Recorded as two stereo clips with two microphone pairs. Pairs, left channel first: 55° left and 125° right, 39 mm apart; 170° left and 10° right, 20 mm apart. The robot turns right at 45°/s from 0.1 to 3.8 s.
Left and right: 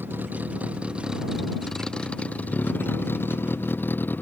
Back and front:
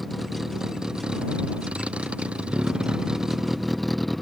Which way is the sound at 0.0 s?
100° right.